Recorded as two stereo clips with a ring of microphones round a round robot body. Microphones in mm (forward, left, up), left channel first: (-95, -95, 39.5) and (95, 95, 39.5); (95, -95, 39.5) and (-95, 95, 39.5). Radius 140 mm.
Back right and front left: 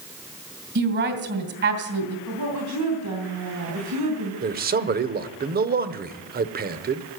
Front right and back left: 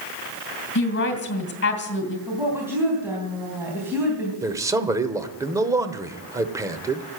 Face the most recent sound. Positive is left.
turn(degrees=65)